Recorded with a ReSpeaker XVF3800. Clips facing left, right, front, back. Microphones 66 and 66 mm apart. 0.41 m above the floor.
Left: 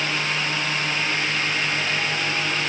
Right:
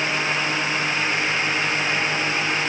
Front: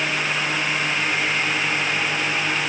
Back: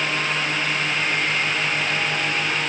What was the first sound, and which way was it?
Only background noise.